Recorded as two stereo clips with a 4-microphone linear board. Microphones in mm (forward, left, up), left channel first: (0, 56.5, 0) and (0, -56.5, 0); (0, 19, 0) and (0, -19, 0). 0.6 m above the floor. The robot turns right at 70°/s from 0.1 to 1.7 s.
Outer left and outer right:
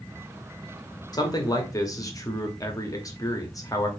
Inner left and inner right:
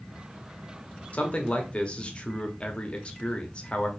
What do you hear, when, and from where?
1.1 s a man speaking: 80° left, 0.8 m; by 3.9 s 120° left, 0.8 m